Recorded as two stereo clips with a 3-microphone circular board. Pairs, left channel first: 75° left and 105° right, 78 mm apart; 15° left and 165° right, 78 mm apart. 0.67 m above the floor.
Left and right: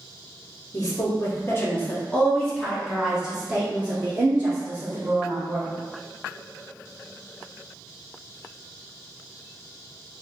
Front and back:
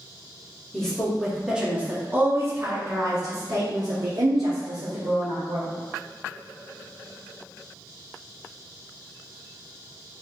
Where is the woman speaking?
95° left, 1.2 m; by 5.7 s 160° right, 2.5 m.